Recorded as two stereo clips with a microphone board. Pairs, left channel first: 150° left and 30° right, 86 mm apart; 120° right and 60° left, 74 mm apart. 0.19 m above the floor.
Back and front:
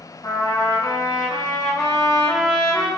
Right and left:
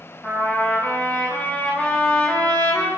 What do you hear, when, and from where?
0.2 s a trumpet: 170° left, 3.5 m